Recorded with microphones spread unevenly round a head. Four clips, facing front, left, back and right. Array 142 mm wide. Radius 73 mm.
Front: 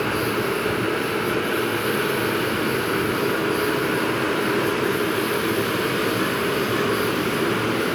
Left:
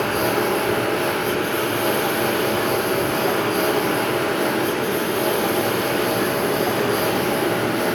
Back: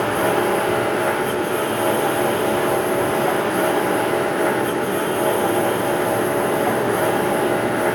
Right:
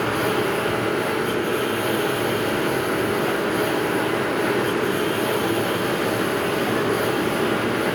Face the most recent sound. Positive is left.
turn(degrees=160)